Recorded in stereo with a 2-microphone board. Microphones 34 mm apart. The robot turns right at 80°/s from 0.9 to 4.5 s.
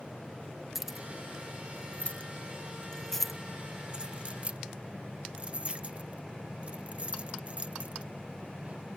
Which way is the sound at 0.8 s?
10° right (ahead or behind).